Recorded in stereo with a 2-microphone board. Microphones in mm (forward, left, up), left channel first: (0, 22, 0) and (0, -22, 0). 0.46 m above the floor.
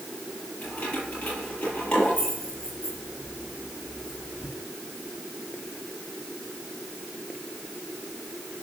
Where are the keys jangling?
30° left (ahead or behind), 8.5 m; by 4.5 s 20° left (ahead or behind), 10.5 m.